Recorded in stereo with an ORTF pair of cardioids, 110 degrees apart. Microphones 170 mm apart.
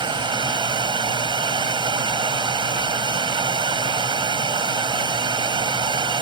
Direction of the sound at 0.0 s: 30° right.